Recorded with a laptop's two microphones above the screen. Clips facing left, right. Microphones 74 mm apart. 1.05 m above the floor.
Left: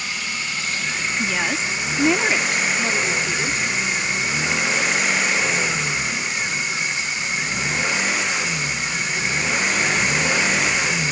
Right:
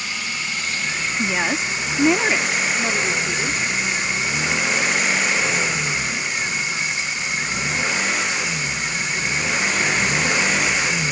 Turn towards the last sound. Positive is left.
turn(degrees=0)  # may be behind; listen again after turning